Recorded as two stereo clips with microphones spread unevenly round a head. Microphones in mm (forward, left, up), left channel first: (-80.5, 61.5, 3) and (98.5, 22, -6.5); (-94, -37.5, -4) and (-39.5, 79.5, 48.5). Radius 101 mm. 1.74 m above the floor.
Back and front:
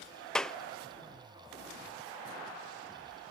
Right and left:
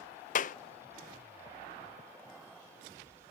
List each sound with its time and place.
0.3 s a clap: 115° right